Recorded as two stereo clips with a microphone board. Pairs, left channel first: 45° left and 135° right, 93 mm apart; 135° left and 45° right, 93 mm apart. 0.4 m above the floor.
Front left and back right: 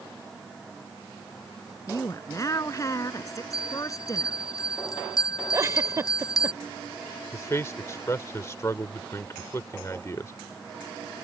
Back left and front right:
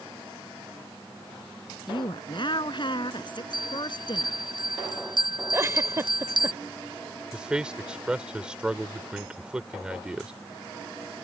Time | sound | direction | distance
1.9 | a woman speaking | 100° left | ?
3.5 | a bell | 5° right | ?
5.5 | a giggle | 95° right | ?
7.3 | a man speaking | 25° left | ?